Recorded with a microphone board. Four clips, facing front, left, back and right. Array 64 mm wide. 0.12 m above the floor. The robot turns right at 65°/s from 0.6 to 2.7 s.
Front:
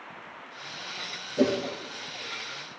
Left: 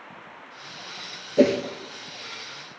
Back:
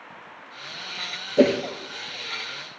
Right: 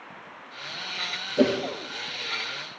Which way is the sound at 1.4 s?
150° left.